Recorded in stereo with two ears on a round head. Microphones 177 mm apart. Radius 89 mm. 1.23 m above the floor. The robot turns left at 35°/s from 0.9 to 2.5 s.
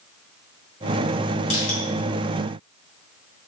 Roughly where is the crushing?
Left.